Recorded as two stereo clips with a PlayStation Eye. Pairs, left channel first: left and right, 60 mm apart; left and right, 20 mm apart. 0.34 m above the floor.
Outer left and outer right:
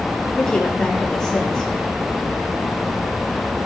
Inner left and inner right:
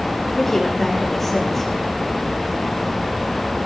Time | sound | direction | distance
0.3 | a woman speaking | 10° left (ahead or behind) | 3 m